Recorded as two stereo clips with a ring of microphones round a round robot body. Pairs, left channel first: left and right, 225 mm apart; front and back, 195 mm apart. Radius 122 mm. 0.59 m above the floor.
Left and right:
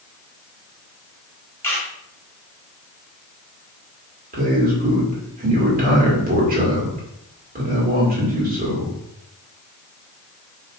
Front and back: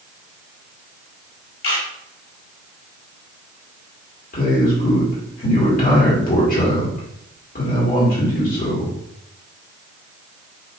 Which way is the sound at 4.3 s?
45° right.